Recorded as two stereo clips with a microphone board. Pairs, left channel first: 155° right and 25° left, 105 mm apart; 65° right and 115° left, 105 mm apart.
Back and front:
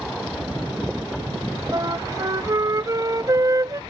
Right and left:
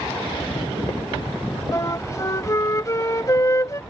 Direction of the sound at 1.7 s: 20° right.